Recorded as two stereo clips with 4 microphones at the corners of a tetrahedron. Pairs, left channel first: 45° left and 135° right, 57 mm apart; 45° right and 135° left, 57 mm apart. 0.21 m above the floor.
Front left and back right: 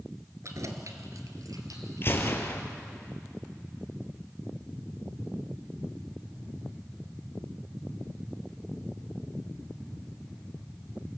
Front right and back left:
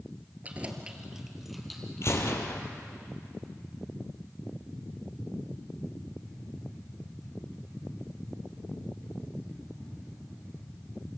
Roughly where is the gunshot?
Ahead.